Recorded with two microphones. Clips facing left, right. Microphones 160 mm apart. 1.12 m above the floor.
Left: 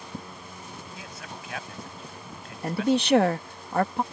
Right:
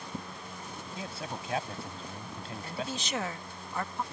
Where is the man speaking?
30° right (ahead or behind).